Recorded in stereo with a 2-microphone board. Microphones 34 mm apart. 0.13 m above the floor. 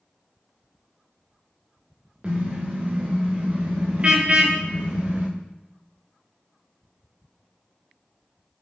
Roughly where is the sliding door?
I don't hear a sliding door.